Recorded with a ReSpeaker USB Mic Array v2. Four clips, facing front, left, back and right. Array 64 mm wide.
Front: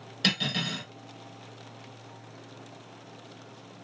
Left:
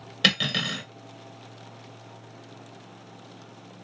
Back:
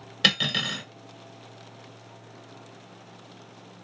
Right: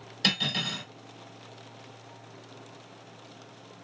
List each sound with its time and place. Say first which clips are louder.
0.2 s cutlery clinking: left 5 dB, back 4 dB; 125° left, 1.1 m